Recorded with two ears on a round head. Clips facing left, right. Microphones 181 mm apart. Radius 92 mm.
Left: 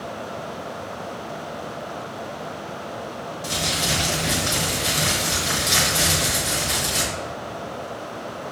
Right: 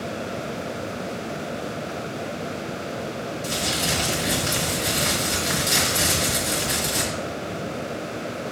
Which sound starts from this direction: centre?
Crumpling, at 3.4 s.